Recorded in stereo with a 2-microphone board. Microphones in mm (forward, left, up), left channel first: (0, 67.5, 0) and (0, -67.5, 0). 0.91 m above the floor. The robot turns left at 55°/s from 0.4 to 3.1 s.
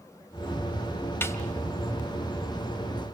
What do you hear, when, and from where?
1.2 s a snare drum: 15° left (ahead or behind), 1.7 m; by 1.4 s 25° left (ahead or behind), 1.7 m